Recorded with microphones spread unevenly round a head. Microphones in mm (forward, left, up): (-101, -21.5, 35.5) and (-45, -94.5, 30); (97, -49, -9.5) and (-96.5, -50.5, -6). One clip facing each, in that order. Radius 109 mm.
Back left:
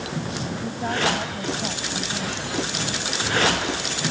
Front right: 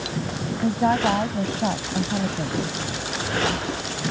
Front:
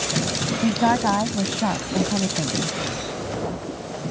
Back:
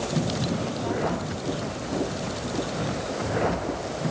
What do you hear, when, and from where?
0.6 s a woman speaking: 10° left